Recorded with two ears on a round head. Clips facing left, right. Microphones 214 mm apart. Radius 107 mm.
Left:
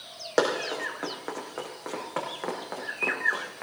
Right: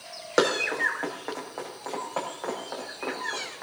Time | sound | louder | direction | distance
0.4 | running footsteps | right 1 dB | 5° right (ahead or behind) | 3.5 m